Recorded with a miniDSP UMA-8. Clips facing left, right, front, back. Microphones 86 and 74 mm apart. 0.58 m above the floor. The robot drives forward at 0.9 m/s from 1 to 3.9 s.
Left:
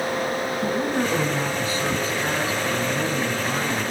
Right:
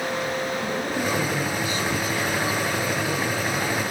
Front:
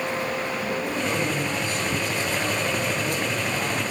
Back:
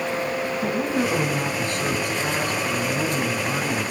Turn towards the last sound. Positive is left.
turn(degrees=155)